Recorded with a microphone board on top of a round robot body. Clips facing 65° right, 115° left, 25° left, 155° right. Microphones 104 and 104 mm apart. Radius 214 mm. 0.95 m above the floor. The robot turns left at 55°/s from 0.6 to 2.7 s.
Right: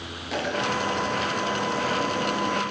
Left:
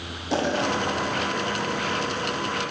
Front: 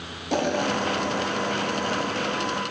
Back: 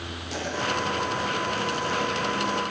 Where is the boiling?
55° left, 3 m; by 2.6 s 55° right, 3 m.